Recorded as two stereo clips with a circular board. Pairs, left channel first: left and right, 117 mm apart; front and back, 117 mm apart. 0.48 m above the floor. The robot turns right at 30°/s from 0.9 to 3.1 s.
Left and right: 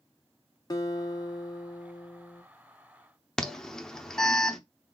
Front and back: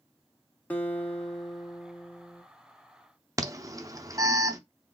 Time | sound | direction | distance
0.7 | a guitar | 65° left | 0.9 m
3.4 | an alarm | 170° left | 0.6 m